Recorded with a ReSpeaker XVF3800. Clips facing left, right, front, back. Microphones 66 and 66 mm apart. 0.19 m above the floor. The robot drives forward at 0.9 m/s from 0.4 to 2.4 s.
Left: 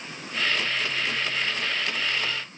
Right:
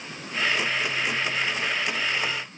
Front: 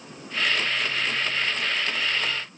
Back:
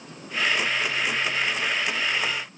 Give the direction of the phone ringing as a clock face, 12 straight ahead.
I don't hear a phone ringing.